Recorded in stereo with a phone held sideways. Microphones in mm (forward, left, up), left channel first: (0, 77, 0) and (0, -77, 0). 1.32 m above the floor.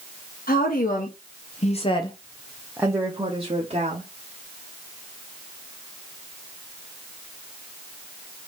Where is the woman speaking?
70° left (ahead or behind), 1.5 m; by 4.1 s 45° right (ahead or behind), 1.4 m.